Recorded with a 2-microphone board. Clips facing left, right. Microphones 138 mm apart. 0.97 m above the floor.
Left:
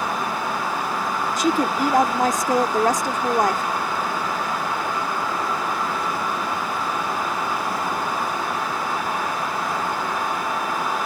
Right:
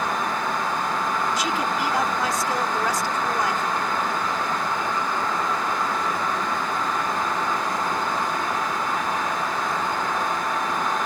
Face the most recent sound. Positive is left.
turn(degrees=50)  # may be behind; listen again after turning